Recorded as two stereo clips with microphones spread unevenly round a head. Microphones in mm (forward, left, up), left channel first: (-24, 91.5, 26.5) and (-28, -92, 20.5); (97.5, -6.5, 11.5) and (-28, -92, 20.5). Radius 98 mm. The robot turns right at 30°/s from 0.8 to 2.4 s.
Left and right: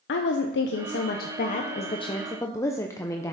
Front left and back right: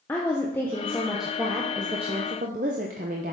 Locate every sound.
0.1 s a woman speaking: 115° left, 0.6 m; by 3.3 s 165° left, 0.6 m